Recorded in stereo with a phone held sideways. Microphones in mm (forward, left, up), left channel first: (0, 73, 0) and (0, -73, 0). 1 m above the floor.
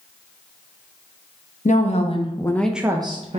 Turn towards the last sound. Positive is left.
turn(degrees=-50)  # may be behind; listen again after turning